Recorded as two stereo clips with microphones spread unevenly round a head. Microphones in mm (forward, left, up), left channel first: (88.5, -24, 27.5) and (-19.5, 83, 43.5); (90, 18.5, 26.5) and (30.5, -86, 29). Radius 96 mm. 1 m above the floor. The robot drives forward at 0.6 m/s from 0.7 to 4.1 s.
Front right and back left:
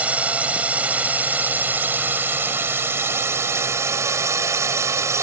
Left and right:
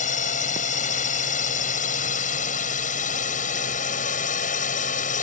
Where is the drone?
55° left; by 5.2 s 65° left.